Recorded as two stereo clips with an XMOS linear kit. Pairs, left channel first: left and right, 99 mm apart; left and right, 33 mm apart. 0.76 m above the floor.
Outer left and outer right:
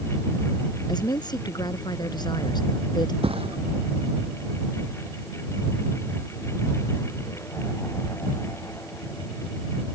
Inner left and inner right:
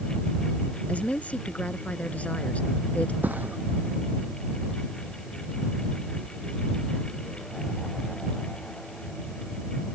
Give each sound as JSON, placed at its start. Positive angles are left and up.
{"t": 0.9, "sound": "a woman speaking", "side_deg": 45}
{"t": 3.2, "sound": "a thud", "side_deg": -70}